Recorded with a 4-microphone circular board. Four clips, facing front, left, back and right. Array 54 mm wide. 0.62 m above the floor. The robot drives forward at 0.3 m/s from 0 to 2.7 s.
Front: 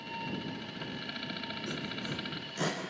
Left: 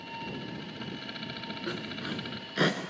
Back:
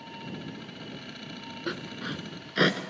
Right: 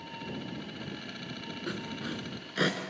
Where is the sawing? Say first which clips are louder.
Even, back 6 dB; 175° left, 1.2 m.